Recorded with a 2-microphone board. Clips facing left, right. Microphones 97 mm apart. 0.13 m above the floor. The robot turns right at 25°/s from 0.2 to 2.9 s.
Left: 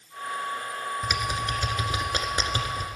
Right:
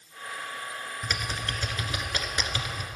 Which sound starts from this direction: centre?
Typing on a keyboard, at 1.0 s.